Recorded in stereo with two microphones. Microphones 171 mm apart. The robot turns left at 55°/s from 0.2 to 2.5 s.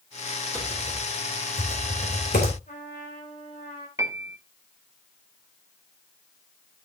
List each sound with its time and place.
0.5 s typing on a keyboard: 5° left (ahead or behind), 3 m; by 2.6 s 65° left (ahead or behind), 3 m
2.7 s a trumpet: 50° left (ahead or behind), 3.5 m
4.0 s a piano: 20° right (ahead or behind), 0.9 m